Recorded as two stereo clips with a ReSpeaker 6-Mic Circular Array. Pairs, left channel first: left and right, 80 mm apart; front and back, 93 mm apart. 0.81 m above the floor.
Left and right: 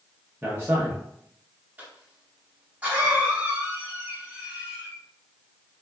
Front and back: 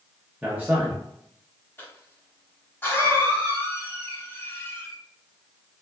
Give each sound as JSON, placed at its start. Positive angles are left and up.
{"t": 0.4, "sound": "a man speaking", "azimuth_deg": -120, "distance_m": 0.7}
{"t": 1.8, "sound": "a cough", "azimuth_deg": -40, "distance_m": 1.0}